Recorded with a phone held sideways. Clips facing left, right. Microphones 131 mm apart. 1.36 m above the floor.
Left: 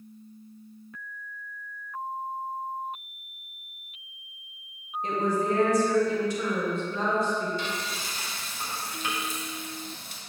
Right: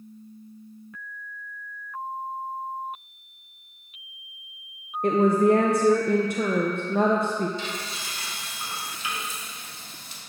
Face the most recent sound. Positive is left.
turn(degrees=55)  # may be behind; listen again after turning